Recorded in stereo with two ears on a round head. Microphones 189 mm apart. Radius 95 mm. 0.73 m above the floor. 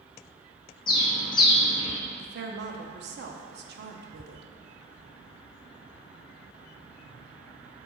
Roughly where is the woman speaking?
Right.